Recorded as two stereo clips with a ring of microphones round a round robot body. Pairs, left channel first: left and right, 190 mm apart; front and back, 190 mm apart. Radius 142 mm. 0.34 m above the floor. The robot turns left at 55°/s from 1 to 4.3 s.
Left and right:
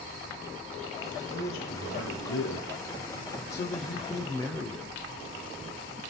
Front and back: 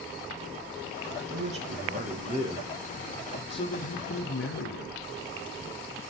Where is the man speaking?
Straight behind, 4.5 m; by 5.0 s 15° left, 4.5 m.